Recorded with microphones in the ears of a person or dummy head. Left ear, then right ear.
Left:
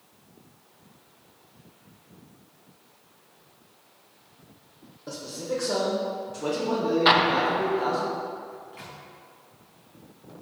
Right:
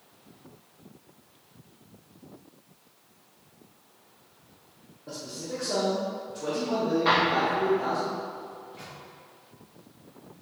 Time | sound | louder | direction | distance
5.1 | a man speaking | left 4 dB | 80° left | 1.3 m
7.0 | an explosion | left 4 dB | 30° left (ahead or behind) | 0.6 m
8.5 | a microwave | left 1 dB | 35° left (ahead or behind) | 1.3 m